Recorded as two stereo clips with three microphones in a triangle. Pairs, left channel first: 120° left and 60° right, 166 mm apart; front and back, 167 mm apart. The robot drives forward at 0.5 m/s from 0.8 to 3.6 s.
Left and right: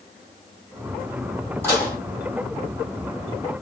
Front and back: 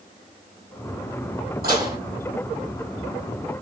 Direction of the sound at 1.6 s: 165° right.